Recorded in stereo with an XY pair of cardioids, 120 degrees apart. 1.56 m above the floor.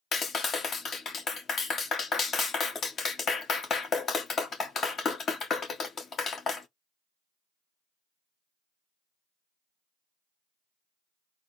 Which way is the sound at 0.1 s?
40° left.